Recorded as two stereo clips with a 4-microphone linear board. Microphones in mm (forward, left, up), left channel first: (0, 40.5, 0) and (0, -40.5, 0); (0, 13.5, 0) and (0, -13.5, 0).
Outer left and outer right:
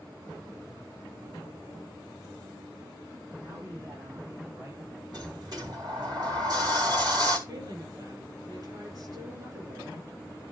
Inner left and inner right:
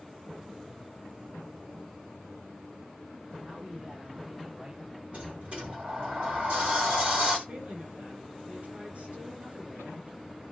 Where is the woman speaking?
50° right (ahead or behind), 7 m.